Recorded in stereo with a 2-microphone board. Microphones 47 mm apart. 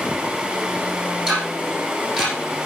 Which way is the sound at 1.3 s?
15° right (ahead or behind).